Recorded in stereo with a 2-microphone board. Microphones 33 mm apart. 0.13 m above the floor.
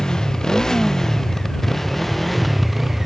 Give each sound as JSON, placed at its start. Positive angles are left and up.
{"t": 0.0, "sound": "a motorcycle", "side_deg": 20}